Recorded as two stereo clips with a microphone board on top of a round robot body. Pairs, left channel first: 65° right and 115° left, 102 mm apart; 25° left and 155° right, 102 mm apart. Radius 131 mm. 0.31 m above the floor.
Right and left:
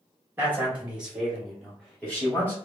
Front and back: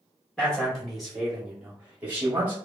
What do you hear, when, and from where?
0.4 s a man speaking: 90° left, 1.5 m; by 2.6 s 115° right, 1.6 m